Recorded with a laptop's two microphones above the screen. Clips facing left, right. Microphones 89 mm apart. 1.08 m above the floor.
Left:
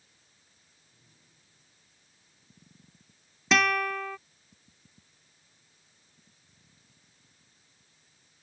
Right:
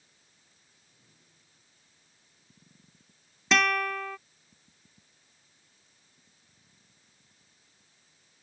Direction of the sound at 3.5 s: Centre (ahead or behind).